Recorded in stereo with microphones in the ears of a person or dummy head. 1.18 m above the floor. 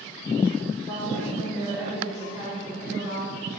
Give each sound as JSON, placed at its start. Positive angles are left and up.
{"t": 0.9, "sound": "a woman speaking", "side_deg": -15, "distance_m": 4.5}